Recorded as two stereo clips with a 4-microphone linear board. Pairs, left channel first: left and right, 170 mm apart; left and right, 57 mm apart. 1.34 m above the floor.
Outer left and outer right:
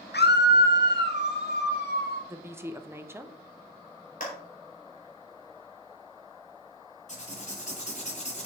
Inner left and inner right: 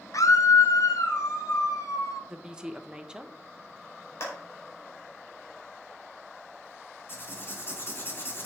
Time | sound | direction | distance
0.1 | a scream | 80° left | 0.8 m
2.3 | a woman speaking | 15° right (ahead or behind) | 0.9 m
4.2 | a clap | 55° left (ahead or behind) | 3.5 m
7.1 | writing | 45° left (ahead or behind) | 2.5 m